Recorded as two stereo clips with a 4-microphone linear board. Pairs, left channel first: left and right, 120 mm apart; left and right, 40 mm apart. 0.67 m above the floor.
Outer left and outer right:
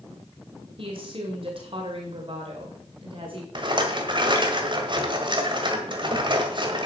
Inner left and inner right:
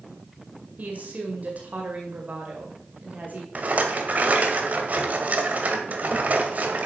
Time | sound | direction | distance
0.8 | a woman speaking | 50° right (ahead or behind) | 2 m
3.5 | a rattle | 45° right (ahead or behind) | 1.6 m